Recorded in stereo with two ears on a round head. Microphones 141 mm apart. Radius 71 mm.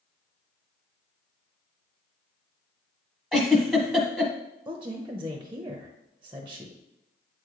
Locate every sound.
3.3 s a giggle: centre (ahead or behind), 1.1 m
4.7 s a woman speaking: 15° right (ahead or behind), 0.8 m